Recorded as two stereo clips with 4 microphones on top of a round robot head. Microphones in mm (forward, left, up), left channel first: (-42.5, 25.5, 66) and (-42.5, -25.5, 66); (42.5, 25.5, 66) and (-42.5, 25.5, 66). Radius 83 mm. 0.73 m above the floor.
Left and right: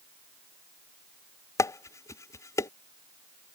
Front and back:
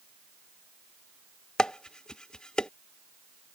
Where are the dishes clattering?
80° left.